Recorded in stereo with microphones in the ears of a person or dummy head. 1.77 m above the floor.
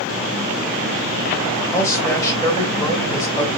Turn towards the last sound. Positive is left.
turn(degrees=15)  # may be behind; listen again after turning